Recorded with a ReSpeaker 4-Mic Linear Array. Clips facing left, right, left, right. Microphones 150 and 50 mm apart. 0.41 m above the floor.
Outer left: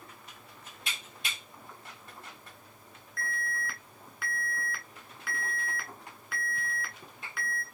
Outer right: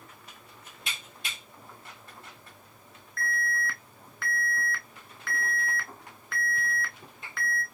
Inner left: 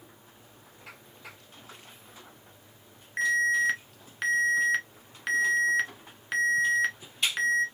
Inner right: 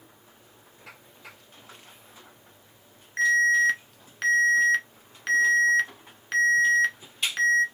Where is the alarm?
5° left (ahead or behind), 1.7 m.